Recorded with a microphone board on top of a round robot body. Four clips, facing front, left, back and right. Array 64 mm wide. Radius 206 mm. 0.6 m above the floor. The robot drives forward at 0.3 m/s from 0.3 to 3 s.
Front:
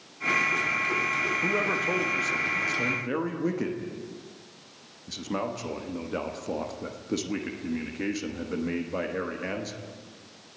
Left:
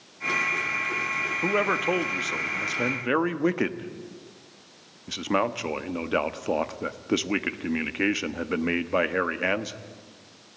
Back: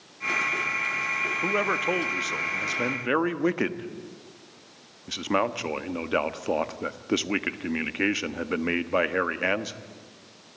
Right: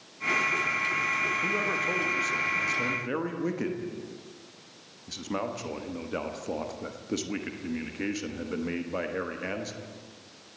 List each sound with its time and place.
1.4 s a man speaking: 115° left, 1.3 m; by 9.8 s 135° left, 1.5 m